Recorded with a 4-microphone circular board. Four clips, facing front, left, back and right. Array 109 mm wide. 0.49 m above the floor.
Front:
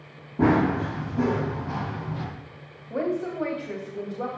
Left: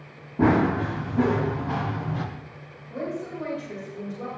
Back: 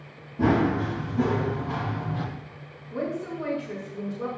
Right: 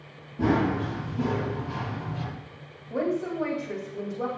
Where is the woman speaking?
20° right, 3.5 m.